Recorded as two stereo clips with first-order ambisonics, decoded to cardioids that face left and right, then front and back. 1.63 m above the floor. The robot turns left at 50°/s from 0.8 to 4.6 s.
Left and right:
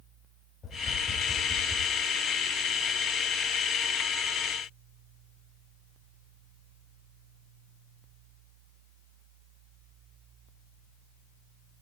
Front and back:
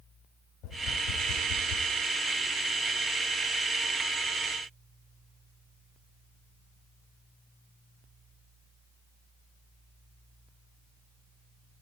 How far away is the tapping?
About 6 m.